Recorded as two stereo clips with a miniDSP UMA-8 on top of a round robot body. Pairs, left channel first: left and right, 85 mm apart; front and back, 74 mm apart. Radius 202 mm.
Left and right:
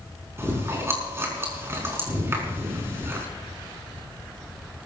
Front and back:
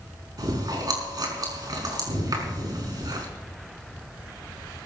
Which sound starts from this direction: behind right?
Chewing, at 0.4 s.